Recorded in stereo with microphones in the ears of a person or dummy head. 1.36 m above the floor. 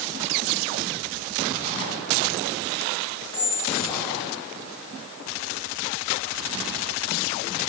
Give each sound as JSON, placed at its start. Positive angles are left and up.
{"t": 3.3, "sound": "a squeak", "side_deg": 15, "distance_m": 0.7}